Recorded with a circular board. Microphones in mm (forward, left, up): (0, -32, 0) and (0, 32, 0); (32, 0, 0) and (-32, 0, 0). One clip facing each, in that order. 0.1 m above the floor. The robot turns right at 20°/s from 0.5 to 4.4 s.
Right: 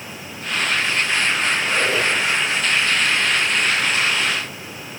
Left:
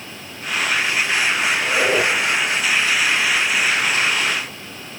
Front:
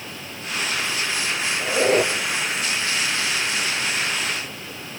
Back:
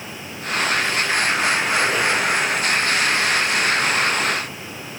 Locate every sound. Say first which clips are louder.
1.6 s a squeak: left 2 dB, even; 15° left, 1.8 m; by 2.1 s 25° left, 1.8 m